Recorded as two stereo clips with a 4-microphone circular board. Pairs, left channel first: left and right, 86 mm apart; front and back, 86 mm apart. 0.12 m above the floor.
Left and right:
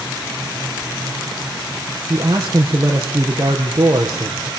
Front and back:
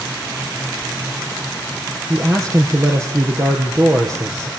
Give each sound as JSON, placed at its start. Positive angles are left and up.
{"t": 2.1, "sound": "a man speaking", "azimuth_deg": -135, "distance_m": 3.5}